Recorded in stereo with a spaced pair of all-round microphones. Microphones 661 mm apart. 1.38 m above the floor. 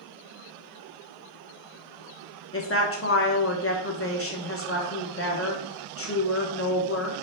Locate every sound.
2.5 s a woman speaking: 20° left (ahead or behind), 0.7 m